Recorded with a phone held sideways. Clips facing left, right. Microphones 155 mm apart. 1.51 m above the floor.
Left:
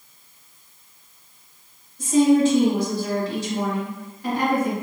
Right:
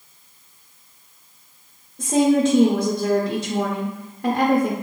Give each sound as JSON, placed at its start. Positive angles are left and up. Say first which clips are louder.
{"t": 2.0, "sound": "a woman speaking", "louder": "left 1 dB", "side_deg": -55, "distance_m": 0.6}